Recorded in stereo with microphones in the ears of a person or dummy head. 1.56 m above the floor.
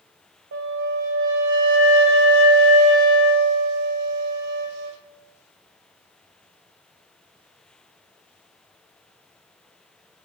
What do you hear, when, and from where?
0.5 s a flute: 65° right (ahead or behind), 0.6 m